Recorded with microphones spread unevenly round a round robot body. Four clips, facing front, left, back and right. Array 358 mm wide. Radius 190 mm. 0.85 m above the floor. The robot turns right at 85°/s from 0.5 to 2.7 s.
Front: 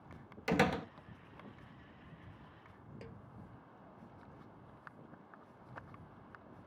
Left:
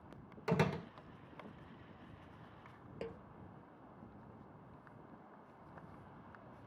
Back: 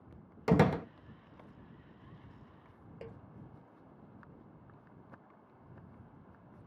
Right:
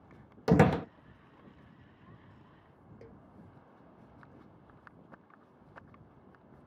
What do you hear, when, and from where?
0.5 s a door slam: 105° right; by 0.9 s 75° right
3.0 s a snare drum: 100° left